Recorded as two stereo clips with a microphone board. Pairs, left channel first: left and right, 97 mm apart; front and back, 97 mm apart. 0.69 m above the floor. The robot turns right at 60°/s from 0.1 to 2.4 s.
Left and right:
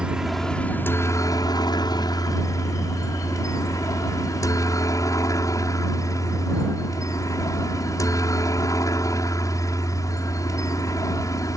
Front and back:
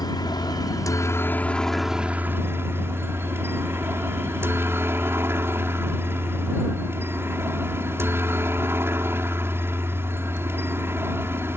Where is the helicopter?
10° right; by 11.6 s 125° left.